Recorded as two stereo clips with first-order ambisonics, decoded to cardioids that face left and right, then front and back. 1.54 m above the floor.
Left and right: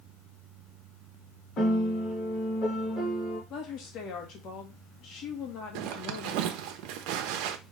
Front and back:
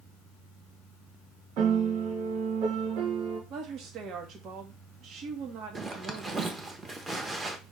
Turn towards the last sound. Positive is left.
turn(degrees=-105)